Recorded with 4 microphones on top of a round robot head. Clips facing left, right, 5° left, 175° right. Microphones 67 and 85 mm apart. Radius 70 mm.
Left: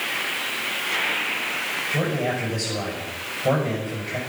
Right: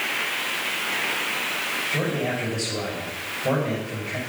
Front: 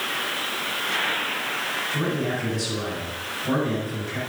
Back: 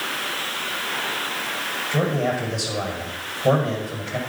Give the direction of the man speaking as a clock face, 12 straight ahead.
6 o'clock.